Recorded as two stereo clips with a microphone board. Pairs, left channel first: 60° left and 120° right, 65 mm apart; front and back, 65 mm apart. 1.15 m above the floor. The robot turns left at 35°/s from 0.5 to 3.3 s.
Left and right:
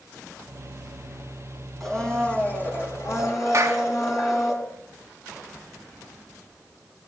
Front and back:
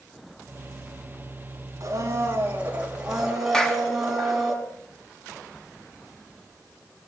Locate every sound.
1.8 s a blender: 145° left, 5 m; by 4.5 s 95° left, 5 m
3.5 s a clap: 80° right, 1.2 m